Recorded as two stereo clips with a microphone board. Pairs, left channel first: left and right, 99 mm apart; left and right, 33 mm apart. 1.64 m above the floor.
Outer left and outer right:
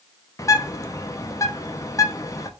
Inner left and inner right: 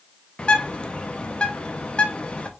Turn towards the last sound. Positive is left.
turn(degrees=35)  # may be behind; listen again after turning